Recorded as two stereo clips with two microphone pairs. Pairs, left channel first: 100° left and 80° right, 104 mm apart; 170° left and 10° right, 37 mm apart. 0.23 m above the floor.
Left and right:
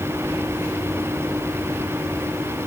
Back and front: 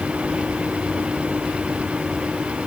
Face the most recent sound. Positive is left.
No sound to turn to.